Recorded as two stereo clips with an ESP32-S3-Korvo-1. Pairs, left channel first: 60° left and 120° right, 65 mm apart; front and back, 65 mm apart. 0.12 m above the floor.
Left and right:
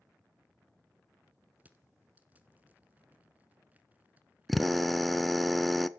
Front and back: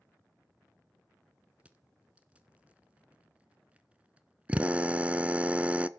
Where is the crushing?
140° right, 1.3 m.